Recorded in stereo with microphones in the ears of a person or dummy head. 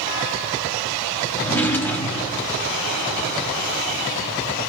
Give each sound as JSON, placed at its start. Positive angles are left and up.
{"t": 1.4, "sound": "a drawer", "side_deg": 10, "distance_m": 0.9}